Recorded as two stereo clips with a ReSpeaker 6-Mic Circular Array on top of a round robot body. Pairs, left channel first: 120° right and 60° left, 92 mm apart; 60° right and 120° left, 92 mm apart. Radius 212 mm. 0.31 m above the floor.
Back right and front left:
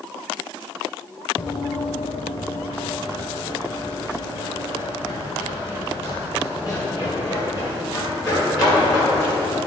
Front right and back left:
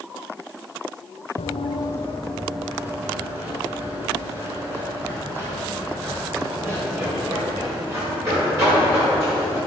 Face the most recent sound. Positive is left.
turn(degrees=180)